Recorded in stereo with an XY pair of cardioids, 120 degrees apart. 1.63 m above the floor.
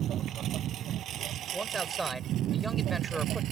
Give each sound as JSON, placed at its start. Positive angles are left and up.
{"t": 0.0, "sound": "a lawn mower", "azimuth_deg": -60}
{"t": 1.5, "sound": "a man speaking", "azimuth_deg": -15}